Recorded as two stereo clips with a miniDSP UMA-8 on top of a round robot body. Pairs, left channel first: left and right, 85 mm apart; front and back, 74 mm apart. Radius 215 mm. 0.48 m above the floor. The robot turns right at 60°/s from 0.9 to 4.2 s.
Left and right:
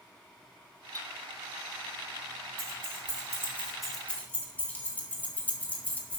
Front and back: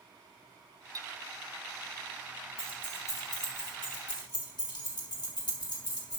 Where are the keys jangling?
75° right, 2.5 m; by 6.2 s 20° left, 2.5 m.